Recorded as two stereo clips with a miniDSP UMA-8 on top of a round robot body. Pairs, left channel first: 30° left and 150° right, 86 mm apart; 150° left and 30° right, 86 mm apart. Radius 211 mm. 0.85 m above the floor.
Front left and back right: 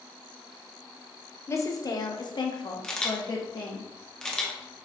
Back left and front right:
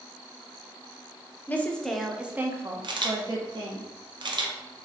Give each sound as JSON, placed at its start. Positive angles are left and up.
{"t": 1.5, "sound": "a woman speaking", "azimuth_deg": 85, "distance_m": 1.0}
{"t": 2.8, "sound": "a camera shutter", "azimuth_deg": -50, "distance_m": 1.0}